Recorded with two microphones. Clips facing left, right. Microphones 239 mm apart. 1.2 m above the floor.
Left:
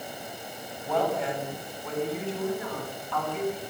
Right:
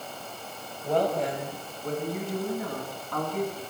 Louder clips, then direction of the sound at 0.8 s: Right 2 dB; 40° right (ahead or behind).